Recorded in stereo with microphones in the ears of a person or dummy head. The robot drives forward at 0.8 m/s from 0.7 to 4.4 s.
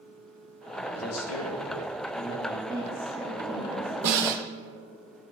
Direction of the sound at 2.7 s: Centre (ahead or behind).